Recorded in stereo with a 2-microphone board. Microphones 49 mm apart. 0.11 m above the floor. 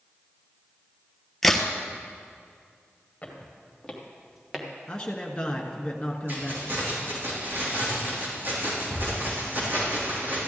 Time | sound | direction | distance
1.4 | a crack | 5° left (ahead or behind) | 0.9 m
3.2 | footsteps | 25° left (ahead or behind) | 3.5 m
4.9 | a man speaking | 20° left (ahead or behind) | 1.1 m
6.3 | keys jangling | 50° right (ahead or behind) | 4 m